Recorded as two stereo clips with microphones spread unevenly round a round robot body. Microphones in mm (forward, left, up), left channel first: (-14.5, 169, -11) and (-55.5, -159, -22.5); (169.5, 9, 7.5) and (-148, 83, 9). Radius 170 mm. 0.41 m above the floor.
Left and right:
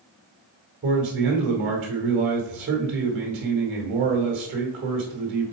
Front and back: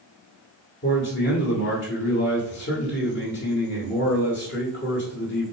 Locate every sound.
0.8 s a man speaking: 55° right, 1.4 m